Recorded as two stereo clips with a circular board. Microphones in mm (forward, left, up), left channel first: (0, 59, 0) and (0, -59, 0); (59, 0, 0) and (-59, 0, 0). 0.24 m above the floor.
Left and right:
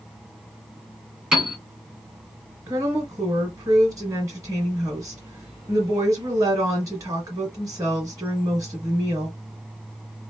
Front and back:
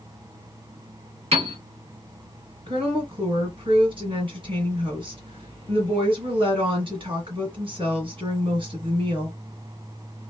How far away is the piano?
About 1.7 m.